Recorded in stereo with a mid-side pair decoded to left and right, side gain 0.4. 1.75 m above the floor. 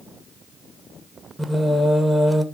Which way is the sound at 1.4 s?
15° right.